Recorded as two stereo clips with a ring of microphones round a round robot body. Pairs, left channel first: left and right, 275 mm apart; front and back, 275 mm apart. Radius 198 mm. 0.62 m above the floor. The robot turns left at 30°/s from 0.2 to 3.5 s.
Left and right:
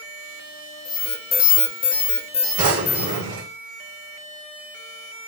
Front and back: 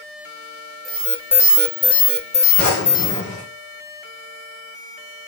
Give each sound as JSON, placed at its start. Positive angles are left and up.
{"t": 0.8, "sound": "an alarm", "azimuth_deg": 90, "distance_m": 1.5}
{"t": 2.6, "sound": "a drawer", "azimuth_deg": -50, "distance_m": 3.5}